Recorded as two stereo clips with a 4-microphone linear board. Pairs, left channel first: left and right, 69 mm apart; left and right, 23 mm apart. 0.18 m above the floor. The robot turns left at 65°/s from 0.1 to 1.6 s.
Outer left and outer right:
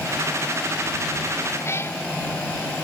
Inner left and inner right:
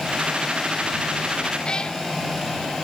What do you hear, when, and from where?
1.6 s a cat meowing: 35° left (ahead or behind)